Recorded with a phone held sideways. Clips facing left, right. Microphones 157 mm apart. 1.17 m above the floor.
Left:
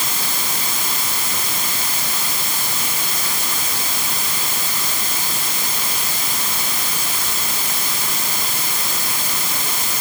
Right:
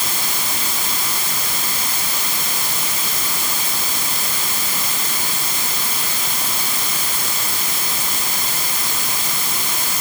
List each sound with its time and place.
Only background noise.